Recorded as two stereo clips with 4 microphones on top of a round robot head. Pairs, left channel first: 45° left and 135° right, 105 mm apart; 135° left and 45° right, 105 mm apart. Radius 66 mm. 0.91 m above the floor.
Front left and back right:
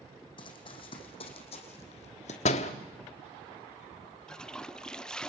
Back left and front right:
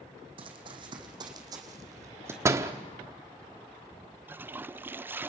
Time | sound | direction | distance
0.4 | running footsteps | straight ahead | 3.5 m
2.5 | a door slam | 25° left | 1.1 m
4.3 | a toilet flushing | 25° right | 0.5 m